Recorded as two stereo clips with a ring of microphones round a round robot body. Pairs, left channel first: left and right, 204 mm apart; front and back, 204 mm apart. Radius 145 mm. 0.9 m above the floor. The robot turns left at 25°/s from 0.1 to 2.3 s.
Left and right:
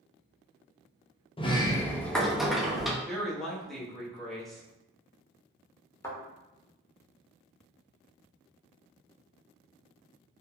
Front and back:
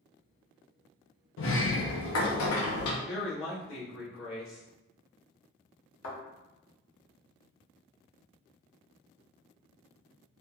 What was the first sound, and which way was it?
A sliding door, 25° left.